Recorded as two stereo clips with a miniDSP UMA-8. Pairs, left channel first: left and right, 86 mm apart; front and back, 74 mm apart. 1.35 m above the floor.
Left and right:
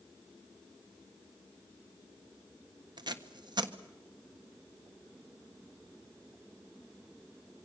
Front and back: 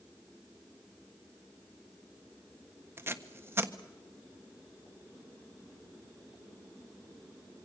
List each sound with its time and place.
3.0 s tape being pulled: 120° right, 1.3 m